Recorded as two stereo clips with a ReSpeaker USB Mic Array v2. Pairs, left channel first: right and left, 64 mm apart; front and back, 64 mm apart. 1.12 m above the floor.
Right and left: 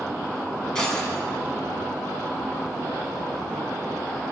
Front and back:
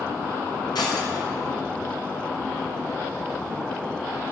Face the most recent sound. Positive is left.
turn(degrees=-10)